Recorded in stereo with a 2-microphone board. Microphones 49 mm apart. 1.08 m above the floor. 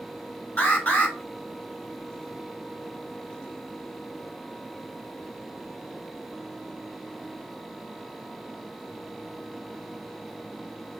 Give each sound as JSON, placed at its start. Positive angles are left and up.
{"t": 0.6, "sound": "an alarm", "side_deg": 30, "distance_m": 4.5}